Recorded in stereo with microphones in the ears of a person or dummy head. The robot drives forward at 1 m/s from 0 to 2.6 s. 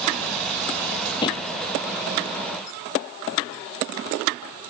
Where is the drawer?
25° left (ahead or behind).